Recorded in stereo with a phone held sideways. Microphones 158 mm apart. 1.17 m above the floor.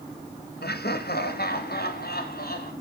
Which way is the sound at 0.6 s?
85° left.